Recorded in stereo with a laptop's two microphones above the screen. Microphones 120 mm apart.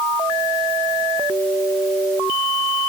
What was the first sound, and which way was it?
Only background noise.